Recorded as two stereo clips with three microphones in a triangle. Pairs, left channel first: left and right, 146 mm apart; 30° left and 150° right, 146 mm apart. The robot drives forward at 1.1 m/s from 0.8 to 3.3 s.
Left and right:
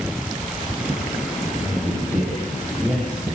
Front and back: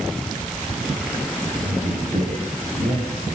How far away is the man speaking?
About 9.5 m.